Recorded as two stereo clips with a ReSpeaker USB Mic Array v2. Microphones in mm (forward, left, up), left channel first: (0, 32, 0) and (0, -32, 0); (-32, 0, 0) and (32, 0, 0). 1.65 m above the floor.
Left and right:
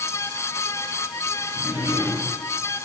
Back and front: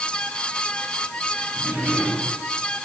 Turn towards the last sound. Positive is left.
turn(degrees=-60)